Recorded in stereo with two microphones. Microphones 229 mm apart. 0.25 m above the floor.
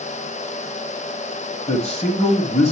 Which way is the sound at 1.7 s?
30° left (ahead or behind).